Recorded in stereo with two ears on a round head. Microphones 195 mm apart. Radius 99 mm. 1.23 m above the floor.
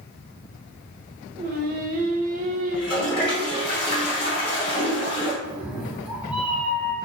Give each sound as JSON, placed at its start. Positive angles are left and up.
{"t": 1.4, "sound": "singing", "side_deg": -40, "distance_m": 0.7}
{"t": 2.7, "sound": "a toilet flushing", "side_deg": 25, "distance_m": 1.9}
{"t": 5.4, "sound": "a cat meowing", "side_deg": -5, "distance_m": 0.8}